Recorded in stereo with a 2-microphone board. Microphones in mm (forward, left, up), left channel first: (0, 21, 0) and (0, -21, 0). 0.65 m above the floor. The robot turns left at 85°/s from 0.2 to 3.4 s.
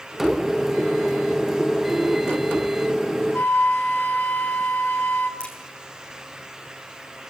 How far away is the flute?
About 1.9 m.